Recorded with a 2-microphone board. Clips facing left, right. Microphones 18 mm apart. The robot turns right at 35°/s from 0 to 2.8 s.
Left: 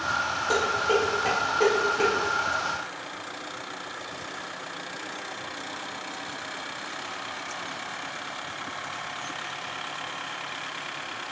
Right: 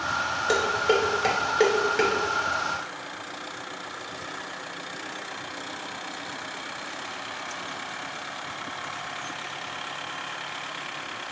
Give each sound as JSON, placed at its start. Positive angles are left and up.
{"t": 0.5, "sound": "dishes clattering", "side_deg": -60, "distance_m": 2.5}